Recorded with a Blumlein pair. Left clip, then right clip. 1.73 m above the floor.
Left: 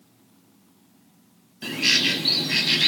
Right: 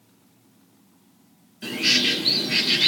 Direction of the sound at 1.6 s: 10° left.